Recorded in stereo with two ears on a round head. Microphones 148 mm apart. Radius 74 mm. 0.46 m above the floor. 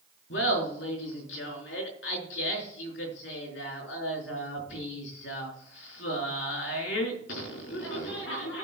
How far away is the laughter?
About 4.5 m.